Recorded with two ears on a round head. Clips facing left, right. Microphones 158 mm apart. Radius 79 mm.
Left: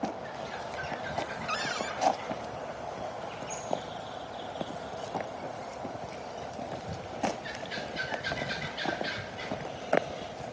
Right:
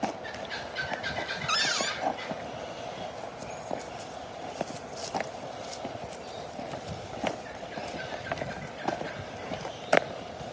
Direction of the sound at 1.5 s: 55° right (ahead or behind).